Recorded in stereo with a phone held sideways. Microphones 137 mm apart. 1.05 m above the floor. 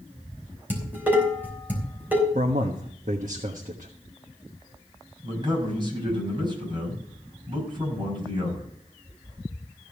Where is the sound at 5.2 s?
35° right (ahead or behind), 5.5 m.